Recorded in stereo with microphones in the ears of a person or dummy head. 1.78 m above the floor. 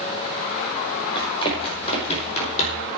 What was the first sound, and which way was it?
Running footsteps, 30° left (ahead or behind).